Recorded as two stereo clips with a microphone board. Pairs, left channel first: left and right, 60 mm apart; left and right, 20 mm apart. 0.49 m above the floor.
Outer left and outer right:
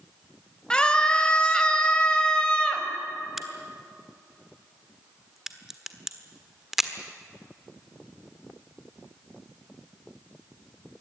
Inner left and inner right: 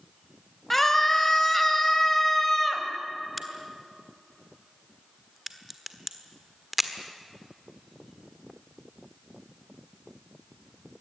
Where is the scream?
15° left (ahead or behind), 3 m.